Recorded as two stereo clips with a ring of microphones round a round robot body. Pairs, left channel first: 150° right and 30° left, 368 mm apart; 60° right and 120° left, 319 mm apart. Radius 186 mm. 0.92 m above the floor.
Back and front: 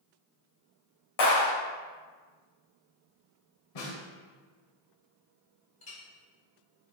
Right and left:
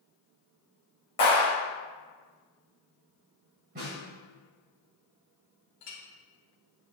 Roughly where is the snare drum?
Behind.